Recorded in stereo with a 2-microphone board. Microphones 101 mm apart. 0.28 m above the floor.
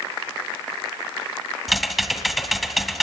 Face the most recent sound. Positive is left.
turn(degrees=0)  # may be behind; listen again after turning